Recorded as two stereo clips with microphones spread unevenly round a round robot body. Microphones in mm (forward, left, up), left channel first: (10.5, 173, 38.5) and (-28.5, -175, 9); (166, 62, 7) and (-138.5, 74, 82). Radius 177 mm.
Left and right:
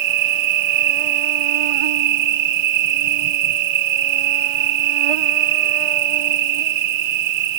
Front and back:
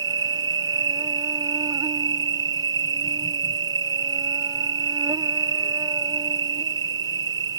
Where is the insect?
100° right.